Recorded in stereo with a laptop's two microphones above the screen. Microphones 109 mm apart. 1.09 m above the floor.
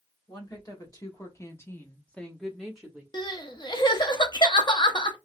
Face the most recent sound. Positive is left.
turn(degrees=45)  # may be behind; listen again after turning